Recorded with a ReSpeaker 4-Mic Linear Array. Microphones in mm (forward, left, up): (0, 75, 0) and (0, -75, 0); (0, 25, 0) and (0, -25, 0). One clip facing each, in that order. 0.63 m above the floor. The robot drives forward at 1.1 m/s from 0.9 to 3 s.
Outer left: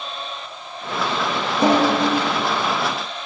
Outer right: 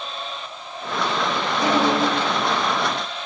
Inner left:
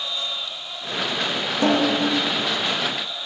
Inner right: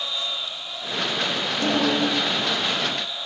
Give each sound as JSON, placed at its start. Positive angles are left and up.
{"t": 1.6, "sound": "a snare drum", "side_deg": 25, "distance_m": 7.5}